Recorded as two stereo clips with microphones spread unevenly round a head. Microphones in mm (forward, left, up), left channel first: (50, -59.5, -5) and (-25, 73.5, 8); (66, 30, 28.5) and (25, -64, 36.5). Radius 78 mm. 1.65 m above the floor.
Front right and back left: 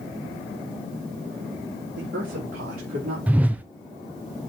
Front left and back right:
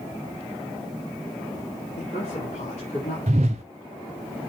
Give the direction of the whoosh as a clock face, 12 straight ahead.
5 o'clock.